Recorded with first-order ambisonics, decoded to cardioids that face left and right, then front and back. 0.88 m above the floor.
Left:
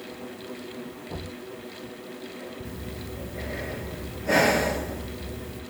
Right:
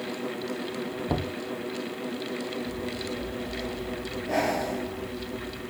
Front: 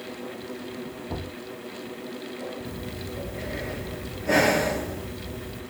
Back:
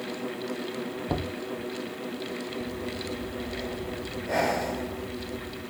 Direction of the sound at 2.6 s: 55° left.